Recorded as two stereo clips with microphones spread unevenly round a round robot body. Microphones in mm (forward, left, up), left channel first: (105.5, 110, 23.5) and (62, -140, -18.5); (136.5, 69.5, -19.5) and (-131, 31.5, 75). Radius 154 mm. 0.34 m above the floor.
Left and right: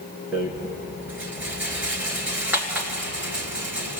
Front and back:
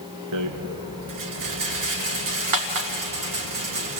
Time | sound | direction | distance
0.3 | a rattle | 175° left | 2 m